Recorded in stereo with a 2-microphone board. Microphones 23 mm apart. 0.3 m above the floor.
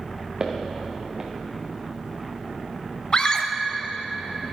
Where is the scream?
35° left (ahead or behind), 1.0 m.